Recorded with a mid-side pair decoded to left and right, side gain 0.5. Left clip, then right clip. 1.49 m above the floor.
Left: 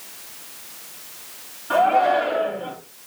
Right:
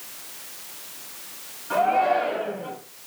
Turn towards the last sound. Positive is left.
turn(degrees=40)